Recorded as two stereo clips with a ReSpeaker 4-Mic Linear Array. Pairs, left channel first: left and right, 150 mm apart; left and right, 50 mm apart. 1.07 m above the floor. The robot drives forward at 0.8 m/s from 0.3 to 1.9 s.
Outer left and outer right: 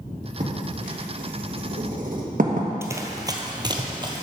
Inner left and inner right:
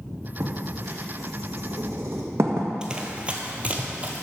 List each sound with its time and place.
0.4 s writing: 55° right (ahead or behind), 1.6 m; by 2.7 s 65° right (ahead or behind), 1.5 m
2.8 s running footsteps: 20° right (ahead or behind), 1.1 m; by 4.2 s 30° right (ahead or behind), 1.5 m